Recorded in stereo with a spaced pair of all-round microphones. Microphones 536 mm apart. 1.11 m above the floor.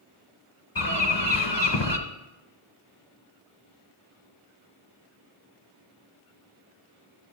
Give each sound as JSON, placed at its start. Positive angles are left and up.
{"t": 0.8, "sound": "a bird", "side_deg": 40, "distance_m": 1.3}